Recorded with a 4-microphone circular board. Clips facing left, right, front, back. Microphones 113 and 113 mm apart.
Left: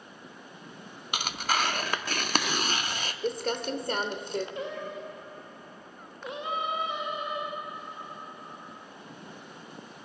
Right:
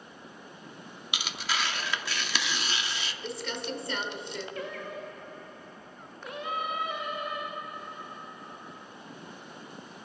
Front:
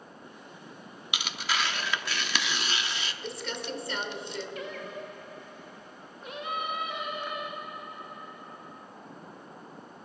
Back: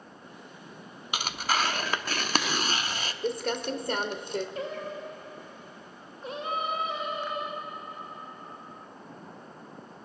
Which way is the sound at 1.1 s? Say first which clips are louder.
Left 4 dB, back 4 dB; 135° left.